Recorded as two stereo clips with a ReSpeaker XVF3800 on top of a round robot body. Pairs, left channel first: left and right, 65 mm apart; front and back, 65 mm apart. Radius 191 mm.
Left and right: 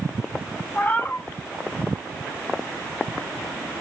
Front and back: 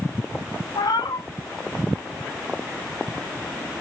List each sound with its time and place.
0.8 s a cat meowing: 30° left, 1.3 m